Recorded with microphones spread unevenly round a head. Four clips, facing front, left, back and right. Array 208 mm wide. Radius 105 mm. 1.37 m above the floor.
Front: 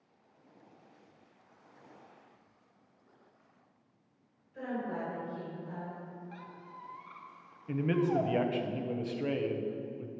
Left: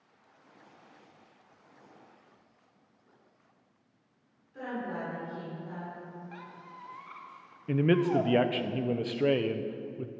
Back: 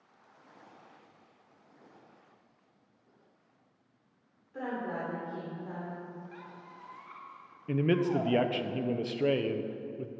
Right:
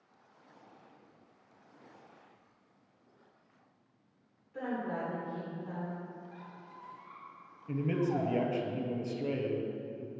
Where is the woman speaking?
160° right, 4 m.